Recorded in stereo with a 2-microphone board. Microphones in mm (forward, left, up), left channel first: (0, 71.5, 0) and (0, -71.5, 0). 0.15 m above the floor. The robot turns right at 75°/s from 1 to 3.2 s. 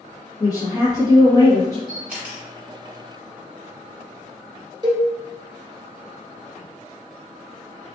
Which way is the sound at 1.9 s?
Centre (ahead or behind).